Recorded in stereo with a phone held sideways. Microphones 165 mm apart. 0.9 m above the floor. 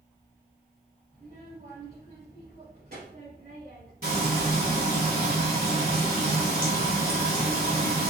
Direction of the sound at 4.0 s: 65° right (ahead or behind).